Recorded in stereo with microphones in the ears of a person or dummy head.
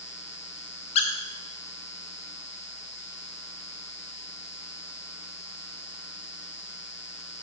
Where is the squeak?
35° left (ahead or behind), 1.0 m.